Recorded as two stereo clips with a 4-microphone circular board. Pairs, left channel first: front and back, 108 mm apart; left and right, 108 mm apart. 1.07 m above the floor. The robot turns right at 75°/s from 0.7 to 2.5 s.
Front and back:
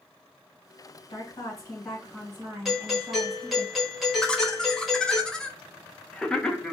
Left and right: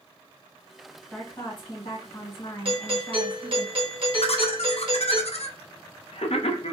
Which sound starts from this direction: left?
Laughter, at 4.2 s.